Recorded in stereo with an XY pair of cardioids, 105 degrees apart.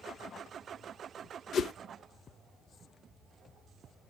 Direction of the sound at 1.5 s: 60° left.